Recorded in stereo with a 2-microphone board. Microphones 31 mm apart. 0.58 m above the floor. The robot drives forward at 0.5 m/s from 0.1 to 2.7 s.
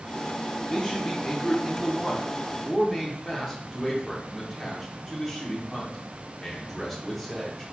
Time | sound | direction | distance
0.7 | a man speaking | 20° left (ahead or behind) | 0.6 m